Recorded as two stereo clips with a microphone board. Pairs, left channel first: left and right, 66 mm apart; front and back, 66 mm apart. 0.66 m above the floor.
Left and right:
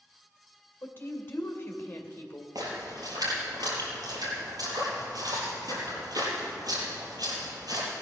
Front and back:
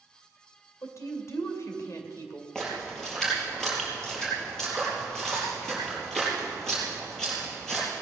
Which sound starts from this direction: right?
A splash, at 2.5 s.